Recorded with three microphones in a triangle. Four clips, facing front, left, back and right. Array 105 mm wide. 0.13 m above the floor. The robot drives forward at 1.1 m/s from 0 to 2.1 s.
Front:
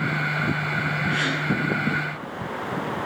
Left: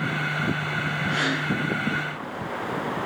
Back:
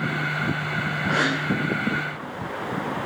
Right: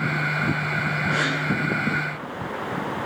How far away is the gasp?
About 4 m.